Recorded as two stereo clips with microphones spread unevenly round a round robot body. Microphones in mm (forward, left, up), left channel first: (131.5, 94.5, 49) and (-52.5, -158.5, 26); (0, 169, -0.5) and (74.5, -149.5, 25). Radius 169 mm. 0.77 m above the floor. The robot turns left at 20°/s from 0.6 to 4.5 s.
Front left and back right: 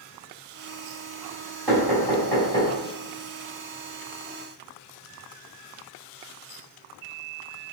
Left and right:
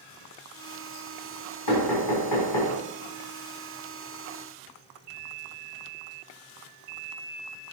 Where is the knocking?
145° left, 3.5 m; by 2.7 s 125° left, 3.5 m.